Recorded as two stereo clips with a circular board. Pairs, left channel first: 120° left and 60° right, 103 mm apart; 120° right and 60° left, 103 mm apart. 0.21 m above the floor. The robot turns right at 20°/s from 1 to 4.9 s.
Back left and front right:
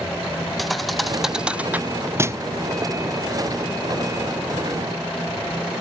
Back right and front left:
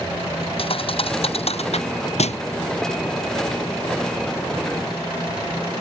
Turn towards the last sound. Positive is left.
turn(degrees=-75)